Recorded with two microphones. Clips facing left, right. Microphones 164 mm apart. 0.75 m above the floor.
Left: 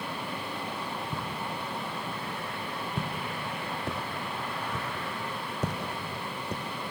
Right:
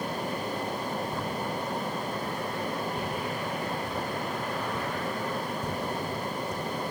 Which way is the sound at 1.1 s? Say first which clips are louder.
Right 4 dB; 65° left (ahead or behind).